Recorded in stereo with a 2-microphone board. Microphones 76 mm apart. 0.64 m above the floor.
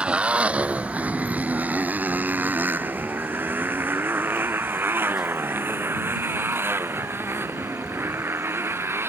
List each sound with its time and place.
0.0 s a motorcycle: 15° right (ahead or behind); by 9.1 s 35° right (ahead or behind)